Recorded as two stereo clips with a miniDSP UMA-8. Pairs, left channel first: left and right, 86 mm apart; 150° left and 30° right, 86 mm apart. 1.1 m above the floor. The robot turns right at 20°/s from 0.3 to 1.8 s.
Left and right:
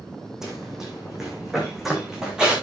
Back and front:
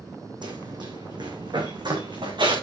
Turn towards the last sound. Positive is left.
turn(degrees=-10)